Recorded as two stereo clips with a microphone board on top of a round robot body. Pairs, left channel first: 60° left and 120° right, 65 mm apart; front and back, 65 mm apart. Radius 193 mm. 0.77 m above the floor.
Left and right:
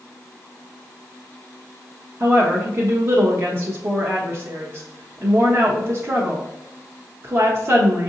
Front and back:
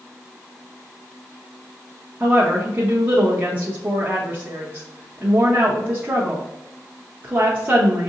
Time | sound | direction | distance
2.2 | a woman speaking | 135° right | 1.1 m